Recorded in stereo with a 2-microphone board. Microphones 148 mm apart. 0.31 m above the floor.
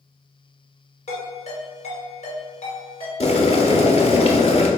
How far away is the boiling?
About 0.6 m.